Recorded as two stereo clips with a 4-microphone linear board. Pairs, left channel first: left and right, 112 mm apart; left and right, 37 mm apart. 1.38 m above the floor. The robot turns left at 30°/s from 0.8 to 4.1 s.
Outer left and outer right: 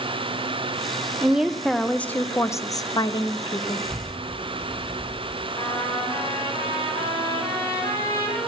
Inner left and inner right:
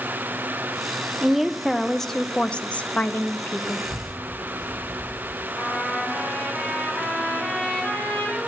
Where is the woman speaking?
170° right, 0.6 m; by 3.9 s 115° left, 0.6 m.